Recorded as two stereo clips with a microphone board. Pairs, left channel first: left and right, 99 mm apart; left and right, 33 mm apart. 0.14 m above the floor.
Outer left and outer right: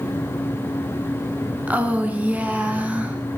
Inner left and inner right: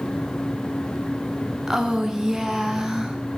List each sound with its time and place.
1.7 s a woman speaking: 15° right (ahead or behind), 1.1 m